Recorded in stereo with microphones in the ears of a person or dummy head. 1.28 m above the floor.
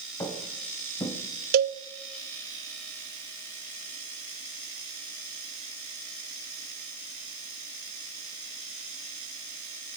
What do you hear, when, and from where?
0.2 s footsteps: 20° left (ahead or behind), 3 m
1.5 s a cowbell: 50° right (ahead or behind), 0.7 m